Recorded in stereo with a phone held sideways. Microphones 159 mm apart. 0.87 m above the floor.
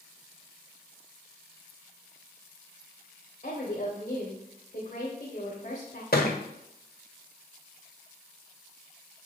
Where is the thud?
75° left (ahead or behind), 1.2 m.